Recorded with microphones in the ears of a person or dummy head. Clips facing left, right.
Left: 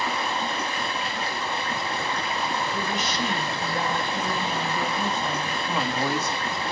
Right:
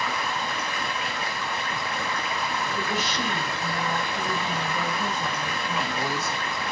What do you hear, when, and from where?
0.0 s running water: 25° left (ahead or behind), 1.8 m
2.7 s a woman speaking: 5° right (ahead or behind), 5.5 m
5.6 s a woman speaking: 45° left (ahead or behind), 3.5 m